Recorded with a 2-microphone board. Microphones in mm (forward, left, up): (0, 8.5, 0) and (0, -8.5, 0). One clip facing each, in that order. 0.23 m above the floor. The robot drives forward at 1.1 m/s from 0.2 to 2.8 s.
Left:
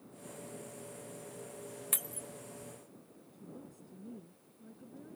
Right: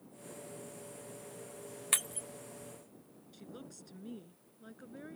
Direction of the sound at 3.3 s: 65° right (ahead or behind).